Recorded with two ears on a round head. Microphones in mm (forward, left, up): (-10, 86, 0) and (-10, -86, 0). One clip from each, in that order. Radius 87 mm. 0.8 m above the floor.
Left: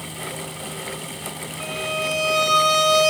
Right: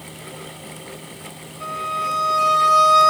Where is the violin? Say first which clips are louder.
Right 2 dB; 50° left (ahead or behind), 3 m.